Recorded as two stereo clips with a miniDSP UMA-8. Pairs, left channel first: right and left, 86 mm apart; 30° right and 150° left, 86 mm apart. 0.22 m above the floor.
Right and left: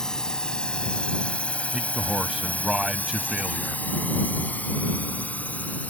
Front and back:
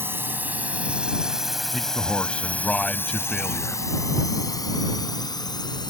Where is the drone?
165° right; by 5.9 s 20° right.